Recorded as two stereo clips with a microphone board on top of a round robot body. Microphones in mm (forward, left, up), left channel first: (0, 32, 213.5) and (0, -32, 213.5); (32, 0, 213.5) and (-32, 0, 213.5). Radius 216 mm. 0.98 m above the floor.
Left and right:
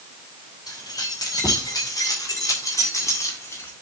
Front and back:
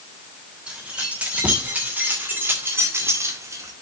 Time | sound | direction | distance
0.7 | keys jangling | 105° left | 3 m